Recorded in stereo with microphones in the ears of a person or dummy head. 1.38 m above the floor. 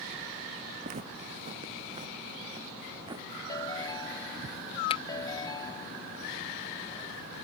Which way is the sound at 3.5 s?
25° left (ahead or behind).